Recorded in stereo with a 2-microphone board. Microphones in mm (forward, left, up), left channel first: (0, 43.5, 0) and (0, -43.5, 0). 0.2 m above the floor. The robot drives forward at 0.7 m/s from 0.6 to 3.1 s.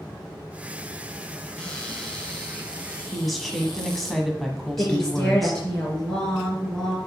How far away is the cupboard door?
About 2.0 m.